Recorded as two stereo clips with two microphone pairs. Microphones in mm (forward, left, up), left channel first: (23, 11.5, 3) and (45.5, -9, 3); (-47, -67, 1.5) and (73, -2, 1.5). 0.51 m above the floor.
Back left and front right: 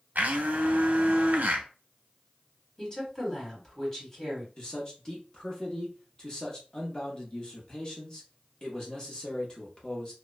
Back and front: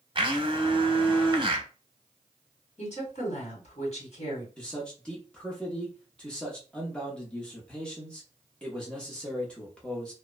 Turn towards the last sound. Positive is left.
turn(degrees=140)